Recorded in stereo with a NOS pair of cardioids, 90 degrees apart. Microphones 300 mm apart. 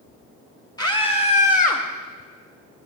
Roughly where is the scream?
Ahead.